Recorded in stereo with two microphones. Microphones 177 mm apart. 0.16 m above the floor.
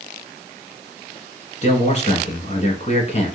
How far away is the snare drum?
I don't hear a snare drum.